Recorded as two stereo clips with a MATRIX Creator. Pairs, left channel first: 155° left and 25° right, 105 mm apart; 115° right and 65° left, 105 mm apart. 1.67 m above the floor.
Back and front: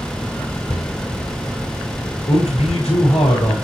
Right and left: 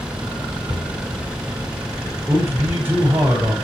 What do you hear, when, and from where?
0.7 s a cupboard door: 140° left, 6.5 m
2.3 s a man speaking: 145° left, 7 m